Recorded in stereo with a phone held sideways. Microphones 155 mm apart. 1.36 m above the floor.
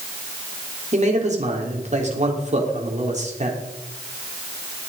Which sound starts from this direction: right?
A man speaking, at 0.9 s.